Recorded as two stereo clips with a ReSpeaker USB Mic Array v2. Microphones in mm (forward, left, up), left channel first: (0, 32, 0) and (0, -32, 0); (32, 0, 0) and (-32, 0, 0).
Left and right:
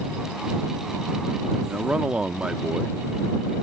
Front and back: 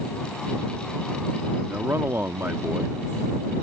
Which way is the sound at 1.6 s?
155° right.